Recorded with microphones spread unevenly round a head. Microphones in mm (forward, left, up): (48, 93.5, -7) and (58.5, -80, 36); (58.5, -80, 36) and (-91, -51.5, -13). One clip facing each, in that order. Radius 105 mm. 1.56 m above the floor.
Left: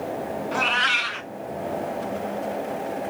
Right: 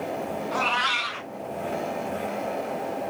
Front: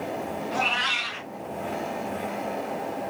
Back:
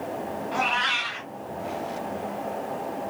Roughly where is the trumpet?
I don't hear a trumpet.